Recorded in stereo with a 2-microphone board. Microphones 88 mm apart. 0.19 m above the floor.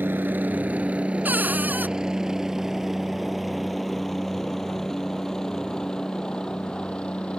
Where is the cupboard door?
20° right (ahead or behind).